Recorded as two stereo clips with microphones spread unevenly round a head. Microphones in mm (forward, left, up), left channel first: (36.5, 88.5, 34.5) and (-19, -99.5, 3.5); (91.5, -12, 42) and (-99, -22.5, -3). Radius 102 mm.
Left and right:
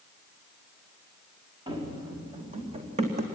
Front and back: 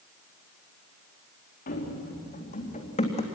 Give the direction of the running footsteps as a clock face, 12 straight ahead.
1 o'clock.